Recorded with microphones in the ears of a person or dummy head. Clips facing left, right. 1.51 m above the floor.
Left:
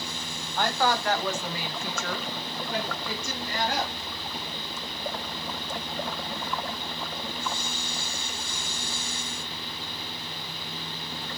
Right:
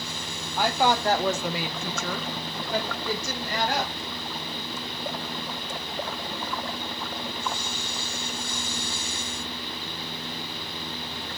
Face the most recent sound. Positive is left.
turn(degrees=-55)  # may be behind; listen again after turning